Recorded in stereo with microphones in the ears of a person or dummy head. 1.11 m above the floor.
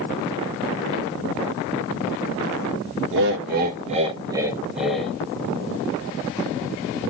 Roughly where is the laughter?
Right.